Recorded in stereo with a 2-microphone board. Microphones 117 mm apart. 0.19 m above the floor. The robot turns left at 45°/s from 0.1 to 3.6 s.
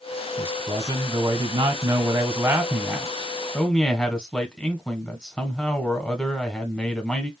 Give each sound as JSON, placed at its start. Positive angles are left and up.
{"t": 0.4, "sound": "a man speaking", "azimuth_deg": -50, "distance_m": 1.4}